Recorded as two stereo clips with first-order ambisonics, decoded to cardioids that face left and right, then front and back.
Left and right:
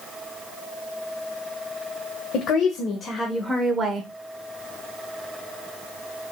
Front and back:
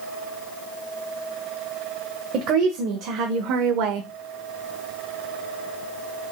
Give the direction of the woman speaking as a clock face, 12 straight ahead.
7 o'clock.